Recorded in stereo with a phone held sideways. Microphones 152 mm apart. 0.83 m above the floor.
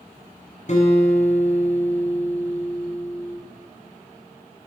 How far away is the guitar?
About 6.5 m.